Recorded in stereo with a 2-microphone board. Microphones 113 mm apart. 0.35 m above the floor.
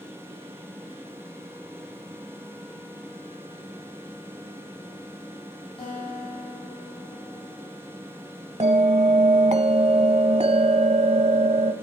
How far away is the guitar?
About 9 m.